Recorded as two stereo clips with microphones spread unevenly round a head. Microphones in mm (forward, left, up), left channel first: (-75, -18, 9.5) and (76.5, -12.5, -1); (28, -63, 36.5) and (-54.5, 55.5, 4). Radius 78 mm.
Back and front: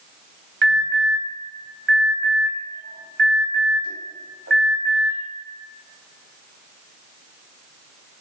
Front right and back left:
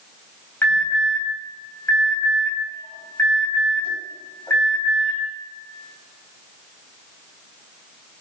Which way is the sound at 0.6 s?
20° left.